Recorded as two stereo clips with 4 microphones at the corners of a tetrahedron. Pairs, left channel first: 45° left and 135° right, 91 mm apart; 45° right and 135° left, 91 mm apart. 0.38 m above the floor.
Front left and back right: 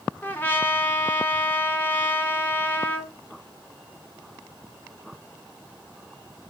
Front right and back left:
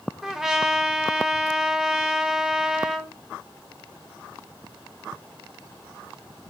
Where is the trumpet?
60° left, 1.3 m.